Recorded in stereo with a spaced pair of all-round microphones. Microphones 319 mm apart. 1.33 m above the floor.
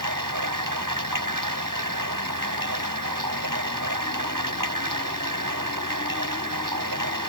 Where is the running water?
80° right.